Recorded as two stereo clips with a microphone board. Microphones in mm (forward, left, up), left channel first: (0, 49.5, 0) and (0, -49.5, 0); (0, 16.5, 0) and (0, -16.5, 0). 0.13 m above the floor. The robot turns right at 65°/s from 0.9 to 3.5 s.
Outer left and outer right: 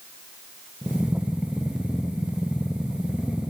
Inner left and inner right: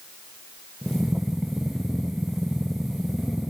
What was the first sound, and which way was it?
Only background noise.